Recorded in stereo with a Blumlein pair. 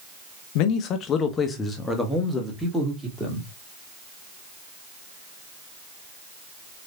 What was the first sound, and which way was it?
A man speaking, 45° left.